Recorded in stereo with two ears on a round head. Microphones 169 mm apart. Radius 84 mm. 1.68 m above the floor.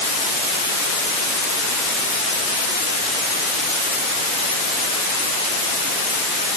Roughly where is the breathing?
No breathing in this recording.